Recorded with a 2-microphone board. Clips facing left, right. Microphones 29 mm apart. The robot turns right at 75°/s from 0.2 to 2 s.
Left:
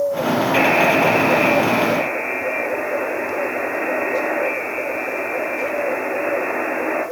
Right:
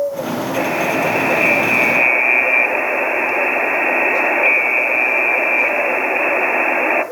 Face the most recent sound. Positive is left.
turn(degrees=-115)